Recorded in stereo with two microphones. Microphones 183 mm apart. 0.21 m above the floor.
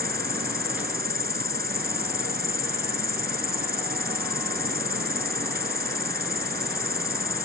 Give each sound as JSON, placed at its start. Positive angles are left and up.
{"t": 0.0, "sound": "an insect", "side_deg": -60}